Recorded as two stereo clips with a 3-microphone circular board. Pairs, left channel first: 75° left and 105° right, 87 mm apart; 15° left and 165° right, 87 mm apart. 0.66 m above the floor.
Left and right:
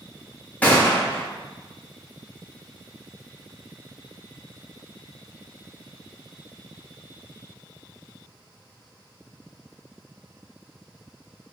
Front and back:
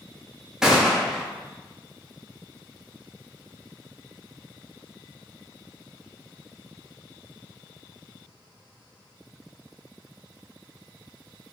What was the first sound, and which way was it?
A gunshot, 120° left.